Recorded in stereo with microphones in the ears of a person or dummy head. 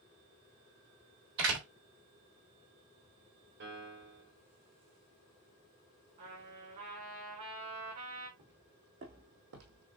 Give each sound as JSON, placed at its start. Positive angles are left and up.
{"t": 1.4, "sound": "a door slam", "side_deg": -65, "distance_m": 3.5}
{"t": 3.6, "sound": "a piano", "side_deg": -60, "distance_m": 3.5}
{"t": 6.2, "sound": "a trumpet", "side_deg": -45, "distance_m": 5.0}
{"t": 8.4, "sound": "footsteps", "side_deg": -55, "distance_m": 4.5}